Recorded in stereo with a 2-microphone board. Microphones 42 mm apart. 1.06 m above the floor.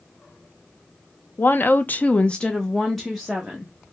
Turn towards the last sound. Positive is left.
turn(degrees=-5)  # may be behind; listen again after turning